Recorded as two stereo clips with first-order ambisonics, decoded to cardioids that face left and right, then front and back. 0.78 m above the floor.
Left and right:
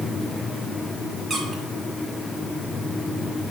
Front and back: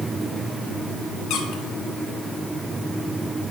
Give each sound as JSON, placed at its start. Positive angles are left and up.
{"t": 1.3, "sound": "a squeak", "azimuth_deg": -20, "distance_m": 0.8}